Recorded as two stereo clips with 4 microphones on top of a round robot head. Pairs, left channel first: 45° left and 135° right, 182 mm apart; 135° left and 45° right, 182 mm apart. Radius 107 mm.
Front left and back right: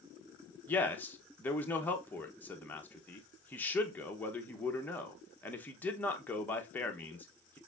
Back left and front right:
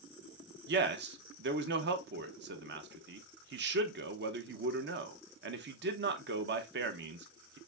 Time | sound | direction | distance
0.7 | a man speaking | 35° right | 0.8 m